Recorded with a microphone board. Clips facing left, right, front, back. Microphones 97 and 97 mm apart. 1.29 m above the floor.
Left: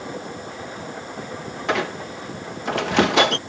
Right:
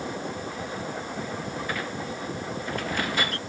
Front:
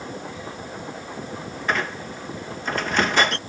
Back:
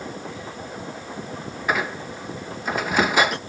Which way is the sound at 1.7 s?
100° left.